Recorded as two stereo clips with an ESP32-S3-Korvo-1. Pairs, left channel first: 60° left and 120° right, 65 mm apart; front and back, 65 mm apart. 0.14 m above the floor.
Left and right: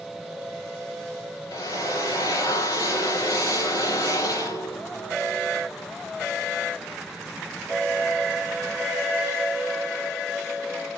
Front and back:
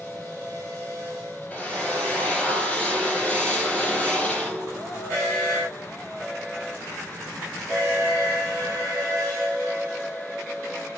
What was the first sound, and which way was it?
A drill, 70° left.